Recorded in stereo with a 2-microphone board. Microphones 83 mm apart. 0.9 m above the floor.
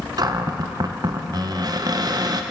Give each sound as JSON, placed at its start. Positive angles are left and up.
{"t": 0.2, "sound": "a cupboard door", "side_deg": -55, "distance_m": 0.6}